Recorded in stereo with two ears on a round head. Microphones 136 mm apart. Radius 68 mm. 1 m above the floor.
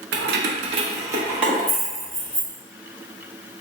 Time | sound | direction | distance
0.1 | keys jangling | 80° right | 0.6 m